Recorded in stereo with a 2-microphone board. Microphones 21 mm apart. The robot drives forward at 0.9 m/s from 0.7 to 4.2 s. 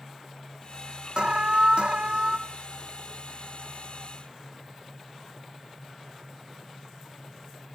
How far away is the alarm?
About 0.8 m.